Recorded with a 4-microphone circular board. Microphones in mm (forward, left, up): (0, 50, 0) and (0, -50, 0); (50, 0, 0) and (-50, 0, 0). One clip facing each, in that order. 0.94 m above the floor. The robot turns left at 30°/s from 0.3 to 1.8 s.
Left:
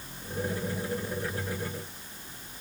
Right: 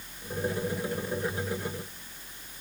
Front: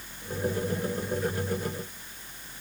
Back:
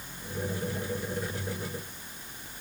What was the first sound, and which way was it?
Only background noise.